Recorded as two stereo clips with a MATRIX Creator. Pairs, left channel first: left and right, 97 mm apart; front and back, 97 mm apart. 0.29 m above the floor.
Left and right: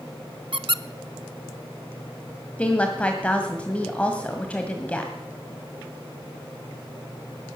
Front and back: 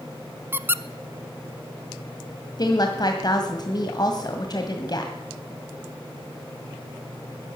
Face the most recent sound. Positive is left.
turn(degrees=15)